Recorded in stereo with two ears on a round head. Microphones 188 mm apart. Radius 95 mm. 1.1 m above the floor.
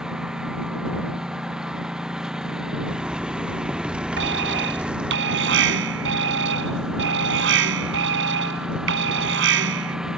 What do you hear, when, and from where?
0.0 s a lawn mower: 5° right (ahead or behind)
2.9 s a zipper: 5° right (ahead or behind)
4.2 s an alarm: 55° right (ahead or behind)